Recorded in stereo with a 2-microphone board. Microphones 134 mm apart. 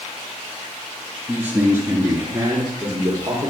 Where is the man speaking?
15° right (ahead or behind), 1.7 m; by 3.5 s 30° right (ahead or behind), 3.5 m.